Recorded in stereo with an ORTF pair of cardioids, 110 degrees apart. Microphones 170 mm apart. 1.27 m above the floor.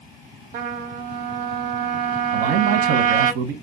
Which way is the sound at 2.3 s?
70° right.